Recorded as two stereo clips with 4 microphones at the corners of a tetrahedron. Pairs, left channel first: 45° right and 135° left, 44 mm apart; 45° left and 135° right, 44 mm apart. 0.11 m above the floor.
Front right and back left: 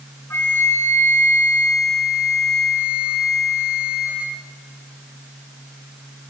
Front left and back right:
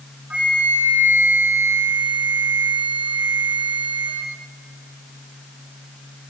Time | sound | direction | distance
0.3 | a flute | 75° right | 5.5 m